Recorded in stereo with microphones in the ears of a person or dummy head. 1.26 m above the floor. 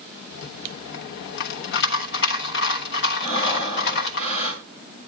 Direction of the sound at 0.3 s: 60° left (ahead or behind).